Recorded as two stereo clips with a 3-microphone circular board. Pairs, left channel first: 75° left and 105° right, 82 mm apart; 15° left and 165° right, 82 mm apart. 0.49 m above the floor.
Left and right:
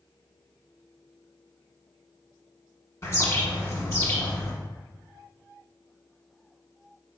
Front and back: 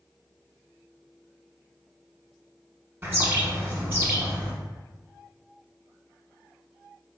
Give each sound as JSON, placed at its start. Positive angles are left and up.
{"t": 3.0, "sound": "a bird", "azimuth_deg": 130, "distance_m": 1.0}